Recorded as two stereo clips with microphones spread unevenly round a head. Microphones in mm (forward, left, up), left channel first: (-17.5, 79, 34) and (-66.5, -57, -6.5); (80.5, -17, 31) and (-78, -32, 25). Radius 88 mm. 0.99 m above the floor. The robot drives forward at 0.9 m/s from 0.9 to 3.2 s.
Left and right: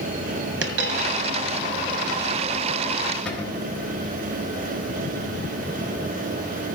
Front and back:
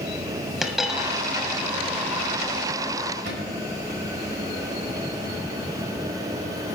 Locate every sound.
0.6 s a dropped coin: 85° right, 1.5 m; by 1.2 s 95° right, 1.5 m
3.2 s a cupboard door: 155° left, 3.5 m